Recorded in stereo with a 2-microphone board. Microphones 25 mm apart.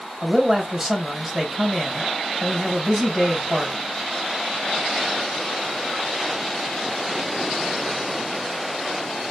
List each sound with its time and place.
0.2 s a man speaking: 25° right (ahead or behind), 2.5 m